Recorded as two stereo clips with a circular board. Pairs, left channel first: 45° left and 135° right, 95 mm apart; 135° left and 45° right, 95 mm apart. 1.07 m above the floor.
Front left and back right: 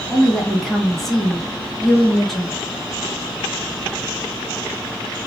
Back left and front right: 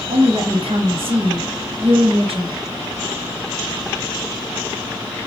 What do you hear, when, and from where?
0.1 s a woman speaking: 40° right, 1.2 m